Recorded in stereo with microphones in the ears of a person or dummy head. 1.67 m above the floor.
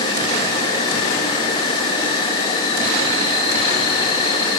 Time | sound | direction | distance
0.0 | an insect | 25° left (ahead or behind) | 1.7 m